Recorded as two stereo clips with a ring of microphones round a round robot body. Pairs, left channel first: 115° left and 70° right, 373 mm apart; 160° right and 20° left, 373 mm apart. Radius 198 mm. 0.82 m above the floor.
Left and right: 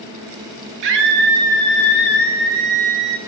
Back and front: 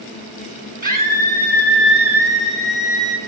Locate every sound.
0.8 s a scream: 45° right, 7.5 m; by 3.2 s 35° right, 7 m